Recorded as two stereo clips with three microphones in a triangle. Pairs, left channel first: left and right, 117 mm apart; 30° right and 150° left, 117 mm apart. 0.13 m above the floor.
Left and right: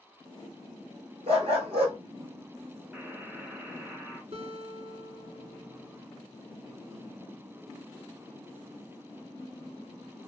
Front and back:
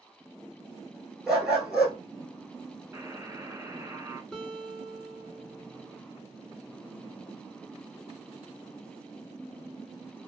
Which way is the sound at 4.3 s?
120° right.